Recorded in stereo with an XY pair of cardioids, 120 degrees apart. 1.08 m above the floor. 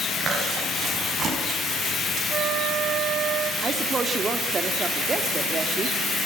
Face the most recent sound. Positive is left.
turn(degrees=-30)